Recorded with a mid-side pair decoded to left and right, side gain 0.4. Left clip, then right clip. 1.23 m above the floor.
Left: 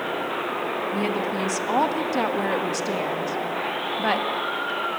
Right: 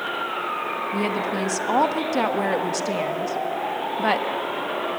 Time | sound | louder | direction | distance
0.9 | a woman speaking | right 1 dB | 20° right | 1.4 m